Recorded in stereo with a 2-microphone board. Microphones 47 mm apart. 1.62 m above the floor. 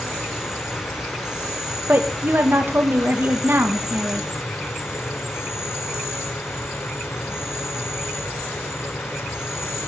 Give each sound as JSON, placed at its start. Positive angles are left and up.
{"t": 0.0, "sound": "an insect", "side_deg": 65, "distance_m": 2.5}
{"t": 1.9, "sound": "a woman speaking", "side_deg": -50, "distance_m": 1.4}